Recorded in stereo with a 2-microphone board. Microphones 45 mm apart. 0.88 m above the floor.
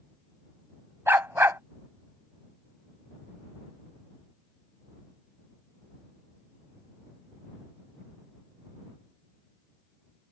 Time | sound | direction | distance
1.1 | a dog barking | 60° right (ahead or behind) | ?